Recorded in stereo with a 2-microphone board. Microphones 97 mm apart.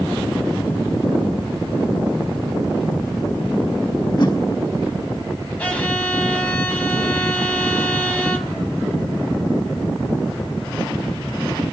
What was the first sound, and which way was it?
A whoosh, 45° left (ahead or behind).